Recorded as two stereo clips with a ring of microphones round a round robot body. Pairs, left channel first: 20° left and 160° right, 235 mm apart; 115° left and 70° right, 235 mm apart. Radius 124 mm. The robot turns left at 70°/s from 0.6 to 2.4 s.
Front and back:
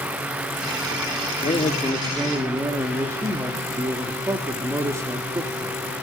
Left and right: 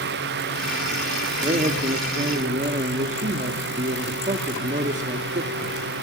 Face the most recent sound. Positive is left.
turn(degrees=-90)